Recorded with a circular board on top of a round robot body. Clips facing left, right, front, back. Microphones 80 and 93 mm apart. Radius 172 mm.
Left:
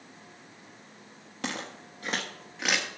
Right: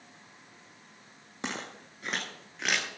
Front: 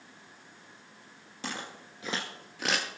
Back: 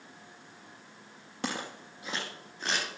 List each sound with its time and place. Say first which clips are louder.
1.4 s footsteps: left 2 dB, back 3 dB; 160° right, 0.6 m; by 2.9 s straight ahead, 1.4 m